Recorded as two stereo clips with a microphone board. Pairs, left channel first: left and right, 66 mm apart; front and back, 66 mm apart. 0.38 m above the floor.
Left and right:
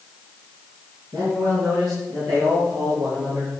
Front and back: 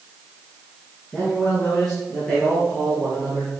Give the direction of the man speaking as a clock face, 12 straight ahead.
3 o'clock.